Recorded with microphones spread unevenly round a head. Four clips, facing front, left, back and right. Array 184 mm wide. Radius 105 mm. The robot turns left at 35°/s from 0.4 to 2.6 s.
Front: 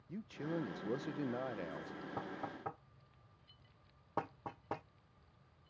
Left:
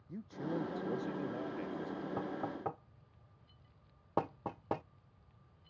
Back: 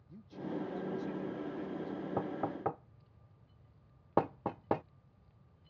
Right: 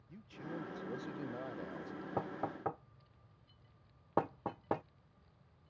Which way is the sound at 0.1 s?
40° left.